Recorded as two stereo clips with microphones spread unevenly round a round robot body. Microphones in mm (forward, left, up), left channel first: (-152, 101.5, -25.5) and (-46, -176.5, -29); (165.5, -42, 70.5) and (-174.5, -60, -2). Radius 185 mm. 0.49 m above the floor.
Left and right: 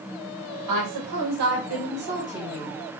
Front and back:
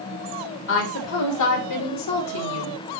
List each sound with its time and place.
0.7 s a woman speaking: 55° right, 2.5 m; by 2.8 s 15° left, 2.5 m